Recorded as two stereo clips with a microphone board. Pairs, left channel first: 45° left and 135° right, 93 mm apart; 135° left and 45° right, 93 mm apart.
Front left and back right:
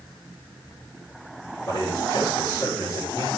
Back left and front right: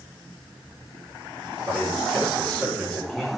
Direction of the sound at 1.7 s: 55° left.